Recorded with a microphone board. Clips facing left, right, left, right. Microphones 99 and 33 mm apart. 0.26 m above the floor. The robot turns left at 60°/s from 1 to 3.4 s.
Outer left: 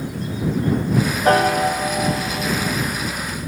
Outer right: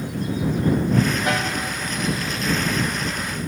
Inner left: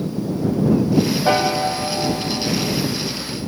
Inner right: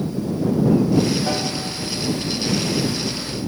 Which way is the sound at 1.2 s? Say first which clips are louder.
Outer left 9 dB, inner left 7 dB; 145° left.